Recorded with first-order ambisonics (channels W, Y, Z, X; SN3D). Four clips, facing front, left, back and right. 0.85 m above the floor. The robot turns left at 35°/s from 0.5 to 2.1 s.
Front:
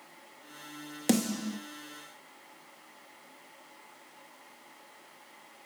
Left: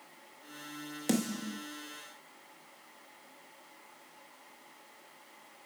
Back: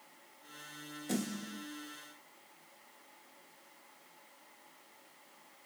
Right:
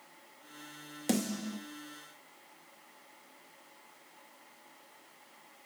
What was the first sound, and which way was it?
A snare drum, straight ahead.